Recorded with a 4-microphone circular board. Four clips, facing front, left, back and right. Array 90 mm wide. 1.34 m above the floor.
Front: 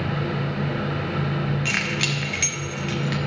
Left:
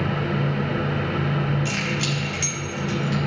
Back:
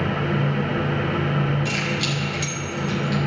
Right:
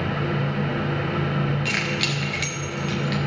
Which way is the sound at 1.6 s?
25° right.